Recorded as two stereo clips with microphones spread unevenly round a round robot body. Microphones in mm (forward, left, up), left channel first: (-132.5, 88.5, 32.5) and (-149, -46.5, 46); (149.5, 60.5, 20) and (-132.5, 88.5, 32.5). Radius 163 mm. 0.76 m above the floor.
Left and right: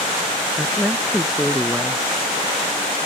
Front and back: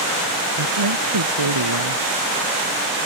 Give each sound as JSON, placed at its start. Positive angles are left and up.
{"t": 0.6, "sound": "a woman speaking", "azimuth_deg": 175}